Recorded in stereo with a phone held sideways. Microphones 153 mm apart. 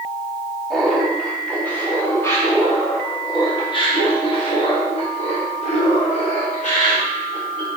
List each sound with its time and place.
0.7 s laughter: centre (ahead or behind), 3 m; by 7.8 s 60° left (ahead or behind), 4.5 m